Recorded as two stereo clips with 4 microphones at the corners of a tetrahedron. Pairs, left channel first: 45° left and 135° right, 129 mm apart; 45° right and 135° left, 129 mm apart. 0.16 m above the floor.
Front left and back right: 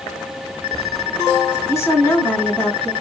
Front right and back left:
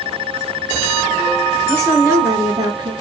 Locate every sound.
1.7 s a woman speaking: 90° left, 1.7 m; by 2.9 s 130° left, 1.8 m